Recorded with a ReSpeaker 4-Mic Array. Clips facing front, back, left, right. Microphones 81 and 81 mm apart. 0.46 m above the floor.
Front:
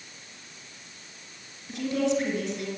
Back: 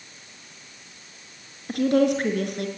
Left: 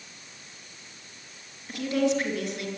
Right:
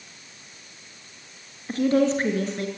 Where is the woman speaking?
145° right, 5.5 m.